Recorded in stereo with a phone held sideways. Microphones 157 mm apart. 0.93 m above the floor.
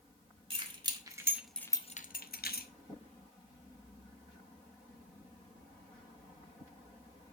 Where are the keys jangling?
35° right (ahead or behind), 1.8 m; by 2.7 s 75° left (ahead or behind), 1.2 m.